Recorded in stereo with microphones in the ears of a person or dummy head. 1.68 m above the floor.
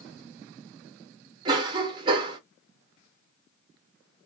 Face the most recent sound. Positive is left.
turn(degrees=-20)  # may be behind; listen again after turning